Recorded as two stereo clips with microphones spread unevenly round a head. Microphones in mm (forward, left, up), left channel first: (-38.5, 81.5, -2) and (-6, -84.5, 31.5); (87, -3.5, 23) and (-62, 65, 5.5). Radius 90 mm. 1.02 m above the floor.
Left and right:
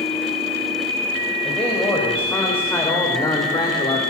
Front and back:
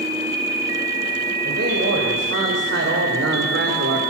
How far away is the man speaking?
About 6 m.